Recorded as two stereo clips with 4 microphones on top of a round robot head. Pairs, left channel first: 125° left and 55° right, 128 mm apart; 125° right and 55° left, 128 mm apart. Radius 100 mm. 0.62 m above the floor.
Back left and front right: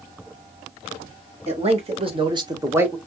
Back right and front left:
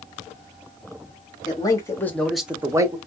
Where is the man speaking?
75° right, 1.7 m; by 3.0 s 20° left, 1.2 m.